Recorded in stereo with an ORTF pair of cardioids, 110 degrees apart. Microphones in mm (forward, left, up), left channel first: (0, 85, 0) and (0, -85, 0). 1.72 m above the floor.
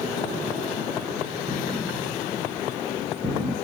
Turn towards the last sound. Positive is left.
turn(degrees=-15)